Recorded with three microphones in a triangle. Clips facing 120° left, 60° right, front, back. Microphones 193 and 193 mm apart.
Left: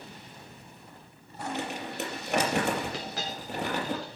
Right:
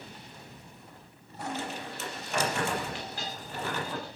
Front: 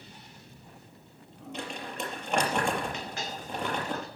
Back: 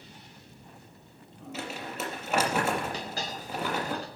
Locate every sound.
1.5 s crumpling: 95° left, 4 m
2.9 s a dropped coin: 125° left, 6 m